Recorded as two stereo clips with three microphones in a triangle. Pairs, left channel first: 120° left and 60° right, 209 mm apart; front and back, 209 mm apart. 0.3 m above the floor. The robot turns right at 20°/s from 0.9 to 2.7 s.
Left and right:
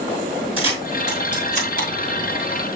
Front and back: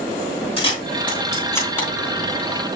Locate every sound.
0.6 s a camera shutter: 60° left, 3.5 m; by 1.9 s 80° left, 3.5 m